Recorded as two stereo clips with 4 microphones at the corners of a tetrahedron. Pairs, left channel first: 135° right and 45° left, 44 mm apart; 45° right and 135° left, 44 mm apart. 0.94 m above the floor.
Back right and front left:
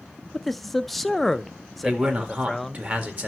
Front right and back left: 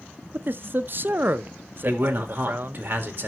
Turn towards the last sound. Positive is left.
turn(degrees=95)